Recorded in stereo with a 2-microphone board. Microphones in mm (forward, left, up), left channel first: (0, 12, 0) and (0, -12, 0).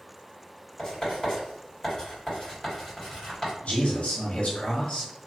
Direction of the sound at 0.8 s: 20° left (ahead or behind).